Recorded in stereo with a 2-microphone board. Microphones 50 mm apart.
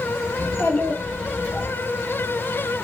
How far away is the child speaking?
About 1.3 m.